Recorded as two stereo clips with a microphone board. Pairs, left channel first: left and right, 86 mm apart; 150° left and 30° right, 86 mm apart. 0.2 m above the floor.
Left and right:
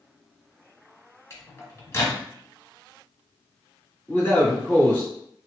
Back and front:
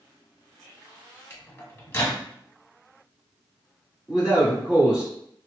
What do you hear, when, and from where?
1.3 s a microwave: 115° left, 0.9 m
4.1 s a man speaking: 40° left, 1.6 m